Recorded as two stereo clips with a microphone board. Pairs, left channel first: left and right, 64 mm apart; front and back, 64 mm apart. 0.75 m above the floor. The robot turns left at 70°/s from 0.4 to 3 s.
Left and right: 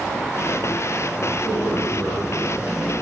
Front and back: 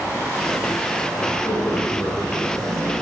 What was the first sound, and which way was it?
A man speaking, 75° left.